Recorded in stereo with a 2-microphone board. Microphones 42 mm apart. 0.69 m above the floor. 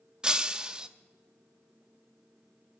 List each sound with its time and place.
0.2 s breaking glass: 20° right (ahead or behind), 0.5 m